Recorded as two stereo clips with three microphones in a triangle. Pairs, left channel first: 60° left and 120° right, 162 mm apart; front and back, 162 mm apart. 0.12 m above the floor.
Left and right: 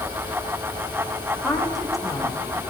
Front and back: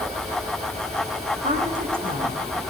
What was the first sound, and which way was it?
A woman speaking, 150° left.